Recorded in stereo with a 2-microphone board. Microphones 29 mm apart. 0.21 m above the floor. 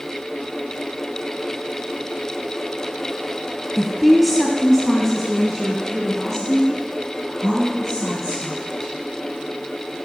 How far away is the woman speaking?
About 1.0 m.